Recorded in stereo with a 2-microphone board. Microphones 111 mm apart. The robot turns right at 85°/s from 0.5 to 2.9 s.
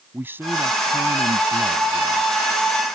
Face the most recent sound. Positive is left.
turn(degrees=55)